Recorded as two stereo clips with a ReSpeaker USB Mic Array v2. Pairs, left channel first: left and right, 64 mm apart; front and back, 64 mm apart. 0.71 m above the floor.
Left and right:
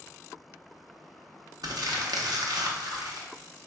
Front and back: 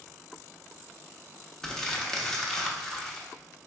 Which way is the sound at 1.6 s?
80° right.